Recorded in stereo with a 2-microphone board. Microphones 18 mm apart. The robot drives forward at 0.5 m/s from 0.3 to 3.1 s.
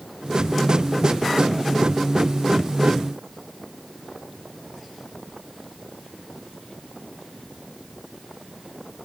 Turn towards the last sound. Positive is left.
No sound to turn to.